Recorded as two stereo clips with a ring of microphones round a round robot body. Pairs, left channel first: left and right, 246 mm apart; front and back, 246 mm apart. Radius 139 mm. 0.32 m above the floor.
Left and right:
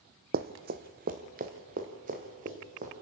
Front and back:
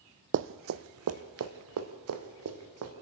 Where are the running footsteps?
145° right, 0.5 m; by 2.9 s 155° right, 2.5 m.